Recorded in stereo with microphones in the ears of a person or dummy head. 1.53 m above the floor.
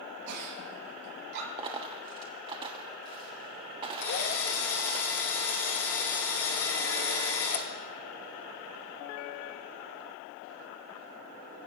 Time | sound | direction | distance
0.3 | a giggle | 60° right (ahead or behind) | 5.5 m
1.6 | a dropped coin | 25° right (ahead or behind) | 1.3 m
4.0 | a drill | 40° left (ahead or behind) | 1.8 m